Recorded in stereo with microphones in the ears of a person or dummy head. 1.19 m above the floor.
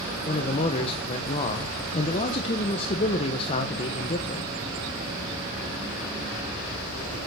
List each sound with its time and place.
0.3 s a man speaking: 35° left (ahead or behind), 1.1 m